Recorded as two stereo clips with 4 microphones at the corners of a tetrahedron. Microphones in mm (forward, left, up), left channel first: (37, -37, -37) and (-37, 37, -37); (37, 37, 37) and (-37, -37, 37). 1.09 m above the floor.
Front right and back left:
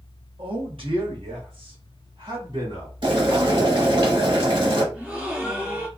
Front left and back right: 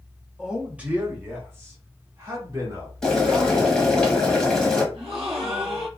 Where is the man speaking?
140° left, 1.1 m; by 3.8 s 175° left, 2.5 m.